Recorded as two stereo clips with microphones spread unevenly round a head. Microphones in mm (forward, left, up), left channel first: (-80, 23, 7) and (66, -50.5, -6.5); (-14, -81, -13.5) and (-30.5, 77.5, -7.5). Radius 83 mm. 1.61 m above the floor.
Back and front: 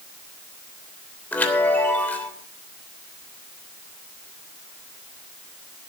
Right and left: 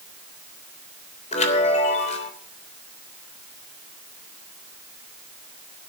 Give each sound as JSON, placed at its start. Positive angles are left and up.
{"t": 1.3, "sound": "a chime", "azimuth_deg": -130, "distance_m": 3.0}